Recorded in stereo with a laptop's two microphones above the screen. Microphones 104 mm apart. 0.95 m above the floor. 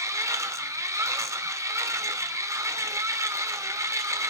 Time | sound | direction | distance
0.0 | a machine running | 30° right (ahead or behind) | 1.1 m